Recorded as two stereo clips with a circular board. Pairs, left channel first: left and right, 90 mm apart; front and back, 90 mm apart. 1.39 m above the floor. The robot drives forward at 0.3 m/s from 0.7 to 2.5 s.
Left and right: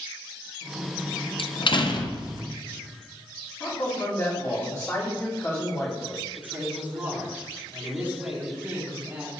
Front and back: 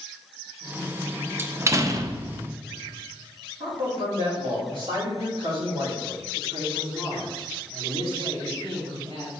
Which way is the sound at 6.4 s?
165° right.